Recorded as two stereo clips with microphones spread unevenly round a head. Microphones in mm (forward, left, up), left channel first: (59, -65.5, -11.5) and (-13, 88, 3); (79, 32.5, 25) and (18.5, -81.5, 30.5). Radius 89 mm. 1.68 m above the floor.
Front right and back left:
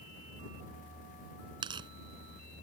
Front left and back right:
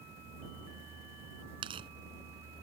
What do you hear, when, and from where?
1.6 s tearing paper: straight behind